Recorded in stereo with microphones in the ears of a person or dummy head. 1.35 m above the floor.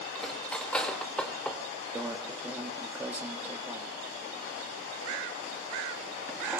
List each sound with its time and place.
0.1 s cutlery clinking: 5° left (ahead or behind), 3 m
1.9 s a microwave: 10° right (ahead or behind), 2 m